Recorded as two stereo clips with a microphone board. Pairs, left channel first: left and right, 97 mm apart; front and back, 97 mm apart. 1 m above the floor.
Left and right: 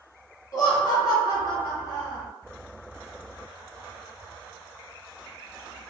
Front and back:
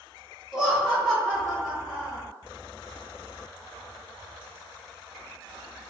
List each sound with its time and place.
0.5 s laughter: 95° left, 0.9 m